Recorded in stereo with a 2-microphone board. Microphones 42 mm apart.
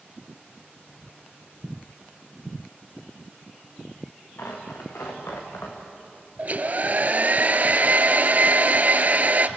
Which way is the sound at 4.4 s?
80° left.